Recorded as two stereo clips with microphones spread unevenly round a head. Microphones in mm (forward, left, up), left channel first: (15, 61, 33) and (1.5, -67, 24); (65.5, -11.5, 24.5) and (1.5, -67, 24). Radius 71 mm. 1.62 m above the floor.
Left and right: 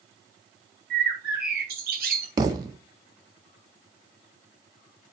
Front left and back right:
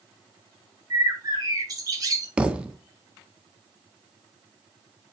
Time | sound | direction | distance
0.9 | a bird | 90° right | 6.5 m
2.4 | a thud | 85° right | 1.1 m